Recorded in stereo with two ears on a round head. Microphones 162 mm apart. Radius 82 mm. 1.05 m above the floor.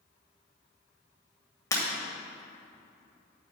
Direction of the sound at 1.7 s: 20° left (ahead or behind).